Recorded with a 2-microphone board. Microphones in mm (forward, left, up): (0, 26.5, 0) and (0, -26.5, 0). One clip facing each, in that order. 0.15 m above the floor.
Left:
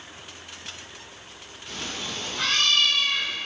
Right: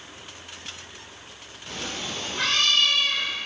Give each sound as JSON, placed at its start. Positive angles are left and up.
{"t": 1.7, "sound": "a cat meowing", "side_deg": -70, "distance_m": 1.9}